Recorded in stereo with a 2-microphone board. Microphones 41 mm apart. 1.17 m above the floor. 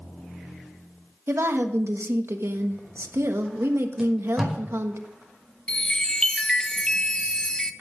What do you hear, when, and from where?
1.3 s a woman speaking: 80° right, 1.3 m
4.0 s tape being pulled: 10° right (ahead or behind), 5 m
5.7 s a chime: 20° left (ahead or behind), 0.6 m